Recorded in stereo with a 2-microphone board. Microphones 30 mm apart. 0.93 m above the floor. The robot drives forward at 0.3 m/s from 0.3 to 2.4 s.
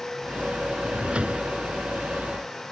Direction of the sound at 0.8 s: 40° right (ahead or behind).